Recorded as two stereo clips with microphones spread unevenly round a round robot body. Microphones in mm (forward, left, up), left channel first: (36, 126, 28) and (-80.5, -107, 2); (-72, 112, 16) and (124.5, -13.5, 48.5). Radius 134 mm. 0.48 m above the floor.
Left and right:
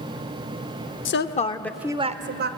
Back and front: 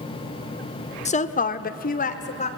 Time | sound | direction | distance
1.1 | a woman speaking | 100° left | 1.4 m